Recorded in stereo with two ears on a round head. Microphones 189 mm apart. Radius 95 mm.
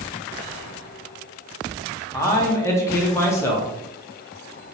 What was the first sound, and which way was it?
A man speaking, 15° left (ahead or behind).